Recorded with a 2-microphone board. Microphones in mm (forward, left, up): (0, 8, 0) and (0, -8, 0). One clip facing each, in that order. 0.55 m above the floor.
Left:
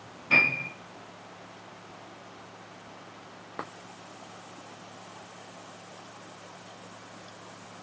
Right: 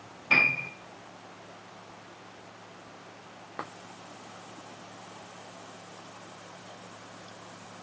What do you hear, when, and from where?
0.3 s a piano: 15° right (ahead or behind), 2.5 m